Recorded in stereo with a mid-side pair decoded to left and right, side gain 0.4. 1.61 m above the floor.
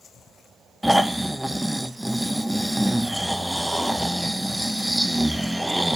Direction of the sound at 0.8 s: 10° right.